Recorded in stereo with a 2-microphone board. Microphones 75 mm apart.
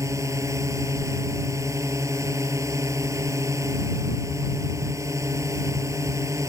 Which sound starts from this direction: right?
A drone, at 0.0 s.